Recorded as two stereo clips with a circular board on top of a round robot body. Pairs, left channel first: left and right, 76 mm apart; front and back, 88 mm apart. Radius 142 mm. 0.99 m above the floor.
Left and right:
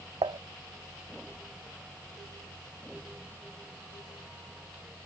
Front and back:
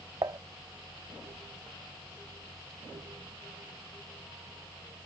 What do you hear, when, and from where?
0.2 s dishes clattering: 125° right